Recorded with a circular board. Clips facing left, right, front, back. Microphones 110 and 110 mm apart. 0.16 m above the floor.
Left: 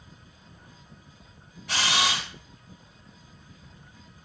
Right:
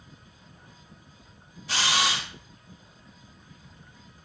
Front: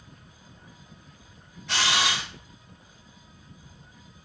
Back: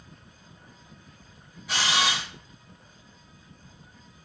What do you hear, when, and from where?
1.7 s a camera shutter: 95° left, 2.0 m